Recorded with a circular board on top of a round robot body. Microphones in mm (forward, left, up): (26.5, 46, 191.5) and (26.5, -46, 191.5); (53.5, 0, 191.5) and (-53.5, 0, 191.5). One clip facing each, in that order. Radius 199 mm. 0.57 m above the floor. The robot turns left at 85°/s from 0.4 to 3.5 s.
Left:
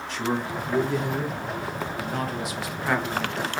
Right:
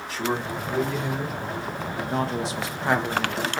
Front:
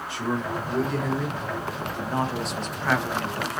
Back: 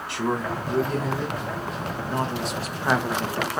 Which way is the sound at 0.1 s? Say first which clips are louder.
Even, back 2 dB; 175° right.